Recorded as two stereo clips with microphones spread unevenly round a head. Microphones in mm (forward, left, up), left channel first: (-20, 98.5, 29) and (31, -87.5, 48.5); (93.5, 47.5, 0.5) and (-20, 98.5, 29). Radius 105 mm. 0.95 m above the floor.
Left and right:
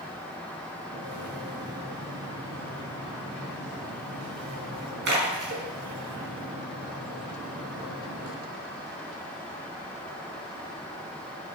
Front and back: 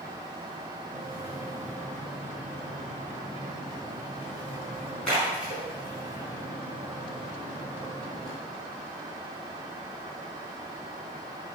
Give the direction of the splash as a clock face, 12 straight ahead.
4 o'clock.